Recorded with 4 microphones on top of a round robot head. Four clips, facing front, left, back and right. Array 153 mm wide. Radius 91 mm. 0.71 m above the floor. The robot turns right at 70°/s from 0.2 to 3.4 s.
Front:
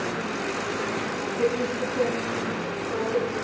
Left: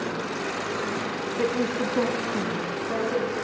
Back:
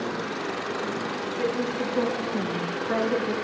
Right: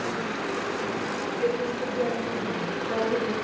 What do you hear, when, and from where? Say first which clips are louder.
1.4 s a woman speaking: left 2 dB, front 2 dB; 85° left, 6 m; by 3.3 s 140° right, 6 m